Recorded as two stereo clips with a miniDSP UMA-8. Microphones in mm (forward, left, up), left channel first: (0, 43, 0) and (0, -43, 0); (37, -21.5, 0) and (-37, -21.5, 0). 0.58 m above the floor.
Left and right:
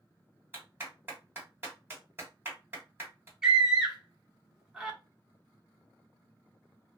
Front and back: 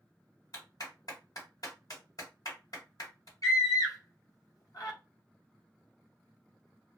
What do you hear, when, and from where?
0.5 s a clap: 30° right, 1.6 m
3.4 s a scream: 10° right, 1.0 m